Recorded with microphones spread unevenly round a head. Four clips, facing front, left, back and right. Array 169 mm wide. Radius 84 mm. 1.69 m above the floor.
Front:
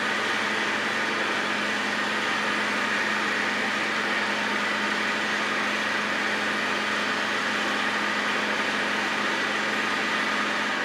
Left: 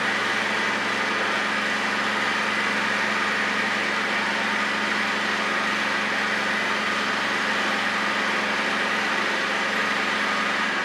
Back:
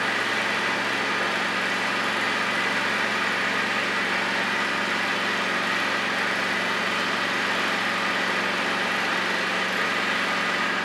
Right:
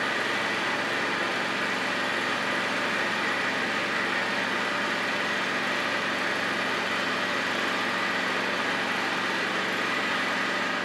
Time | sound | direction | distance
0.0 | an engine running | 110° left | 8.5 m